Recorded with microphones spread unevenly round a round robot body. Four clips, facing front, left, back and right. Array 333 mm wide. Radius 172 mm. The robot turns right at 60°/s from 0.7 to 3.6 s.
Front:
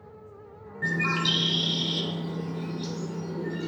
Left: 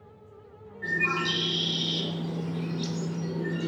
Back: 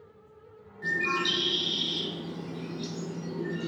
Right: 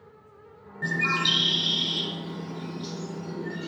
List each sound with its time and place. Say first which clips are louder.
0.8 s a bird: right 1 dB, front 2 dB; 45° right, 0.6 m; by 3.7 s 120° left, 0.6 m